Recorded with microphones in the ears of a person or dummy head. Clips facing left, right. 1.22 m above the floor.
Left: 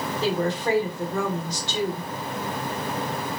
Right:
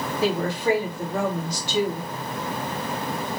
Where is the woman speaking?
10° right (ahead or behind), 1.4 m.